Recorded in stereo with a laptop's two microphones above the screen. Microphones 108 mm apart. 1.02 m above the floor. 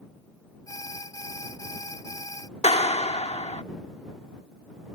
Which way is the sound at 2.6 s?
85° left.